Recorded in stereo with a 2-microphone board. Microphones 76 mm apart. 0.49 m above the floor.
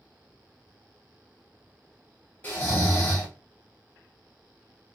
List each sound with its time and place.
2.4 s snoring: 25° left (ahead or behind), 1.5 m